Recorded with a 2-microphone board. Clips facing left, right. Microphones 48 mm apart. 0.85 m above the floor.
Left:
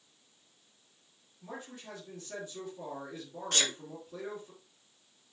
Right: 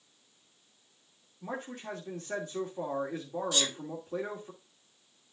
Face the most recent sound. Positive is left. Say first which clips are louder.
# left 2 dB
turn(degrees=60)  # may be behind; listen again after turning